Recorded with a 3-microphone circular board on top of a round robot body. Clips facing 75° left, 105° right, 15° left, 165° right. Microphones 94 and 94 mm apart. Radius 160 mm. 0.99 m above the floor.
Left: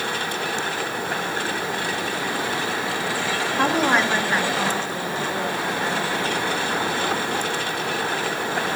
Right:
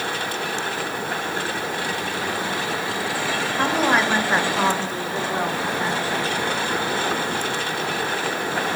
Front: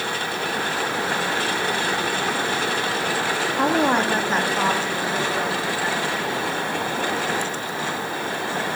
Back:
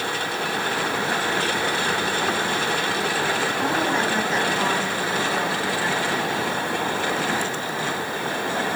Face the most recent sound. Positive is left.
turn(degrees=-85)